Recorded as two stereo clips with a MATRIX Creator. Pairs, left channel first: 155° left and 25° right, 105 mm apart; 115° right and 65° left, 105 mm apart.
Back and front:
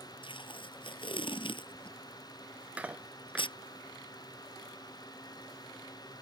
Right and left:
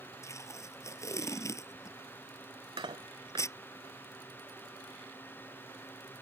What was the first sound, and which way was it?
Tape being pulled, 170° right.